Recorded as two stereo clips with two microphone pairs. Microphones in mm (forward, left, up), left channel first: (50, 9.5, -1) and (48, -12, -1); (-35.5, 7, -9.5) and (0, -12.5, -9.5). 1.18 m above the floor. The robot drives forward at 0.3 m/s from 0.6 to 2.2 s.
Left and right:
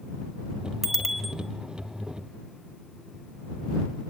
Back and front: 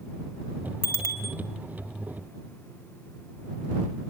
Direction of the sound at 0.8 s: 170° left.